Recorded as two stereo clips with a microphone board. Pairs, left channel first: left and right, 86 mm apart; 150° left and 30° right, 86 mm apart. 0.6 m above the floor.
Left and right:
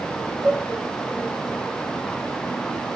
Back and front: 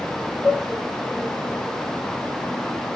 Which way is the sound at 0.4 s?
65° right.